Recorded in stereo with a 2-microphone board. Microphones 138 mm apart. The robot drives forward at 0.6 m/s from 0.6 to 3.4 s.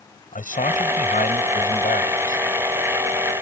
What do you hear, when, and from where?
0.3 s a man speaking: 75° left (ahead or behind); by 2.4 s 80° left